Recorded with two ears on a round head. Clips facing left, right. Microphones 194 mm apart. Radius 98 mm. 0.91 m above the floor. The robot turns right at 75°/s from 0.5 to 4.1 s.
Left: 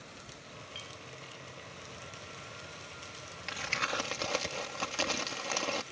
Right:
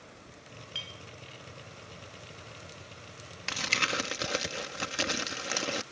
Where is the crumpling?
65° right; by 5.8 s 20° right.